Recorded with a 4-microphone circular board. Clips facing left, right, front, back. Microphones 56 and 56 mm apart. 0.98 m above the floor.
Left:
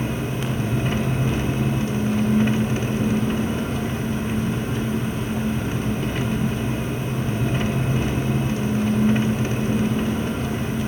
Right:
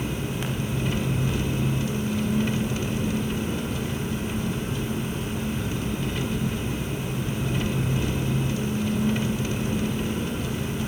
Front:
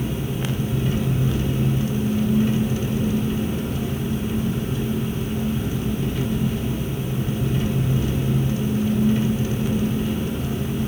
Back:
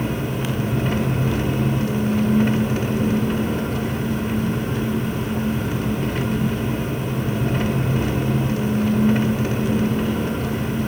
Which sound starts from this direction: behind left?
An engine running, at 0.0 s.